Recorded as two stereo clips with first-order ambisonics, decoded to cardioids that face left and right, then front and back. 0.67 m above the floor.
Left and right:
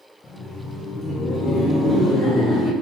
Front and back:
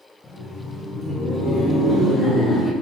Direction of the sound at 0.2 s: 50° left.